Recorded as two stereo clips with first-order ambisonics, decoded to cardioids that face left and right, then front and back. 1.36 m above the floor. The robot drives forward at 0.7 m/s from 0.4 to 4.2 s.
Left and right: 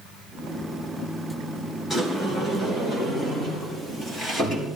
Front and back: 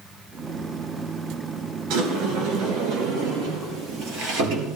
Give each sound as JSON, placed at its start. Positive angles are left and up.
{"t": 1.9, "sound": "a sliding door", "azimuth_deg": 170, "distance_m": 3.5}